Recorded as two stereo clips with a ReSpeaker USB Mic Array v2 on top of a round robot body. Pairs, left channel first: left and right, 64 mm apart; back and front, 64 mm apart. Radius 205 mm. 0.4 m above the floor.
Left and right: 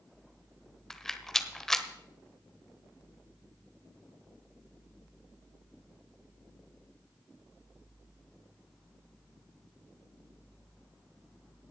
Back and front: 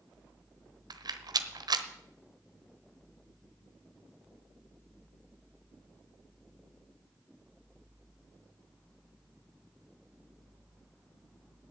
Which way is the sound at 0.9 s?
5° left.